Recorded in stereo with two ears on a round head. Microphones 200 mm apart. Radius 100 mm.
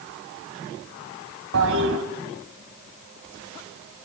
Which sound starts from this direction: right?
A toilet flushing, at 1.5 s.